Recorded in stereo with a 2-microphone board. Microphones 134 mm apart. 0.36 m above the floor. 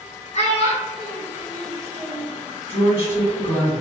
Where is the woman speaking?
45° left (ahead or behind), 1.9 m.